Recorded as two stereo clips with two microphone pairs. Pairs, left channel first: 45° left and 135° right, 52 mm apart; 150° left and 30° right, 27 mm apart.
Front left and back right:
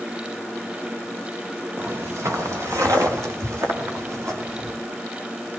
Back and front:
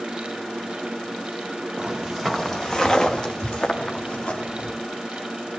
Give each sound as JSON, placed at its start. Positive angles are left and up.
{"t": 1.8, "sound": "footsteps", "azimuth_deg": -85, "distance_m": 1.3}